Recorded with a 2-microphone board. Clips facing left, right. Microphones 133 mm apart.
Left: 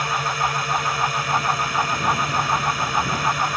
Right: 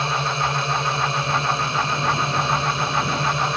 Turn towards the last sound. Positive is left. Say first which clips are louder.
# even
turn(degrees=-25)  # may be behind; listen again after turning